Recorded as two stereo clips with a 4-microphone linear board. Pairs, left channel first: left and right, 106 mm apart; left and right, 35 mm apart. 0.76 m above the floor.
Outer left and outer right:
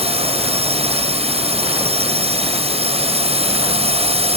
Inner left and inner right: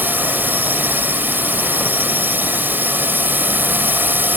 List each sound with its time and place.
0.0 s a drone: 70° right (ahead or behind)